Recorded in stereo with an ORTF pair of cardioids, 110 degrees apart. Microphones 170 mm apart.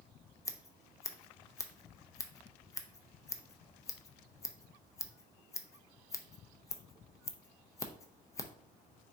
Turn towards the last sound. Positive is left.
turn(degrees=20)